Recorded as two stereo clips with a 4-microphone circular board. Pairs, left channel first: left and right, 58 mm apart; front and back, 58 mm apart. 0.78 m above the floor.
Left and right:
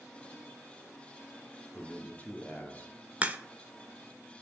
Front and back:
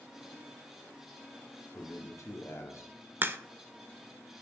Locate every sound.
1.7 s a man speaking: 30° left, 1.5 m
3.2 s a crack: 145° right, 0.5 m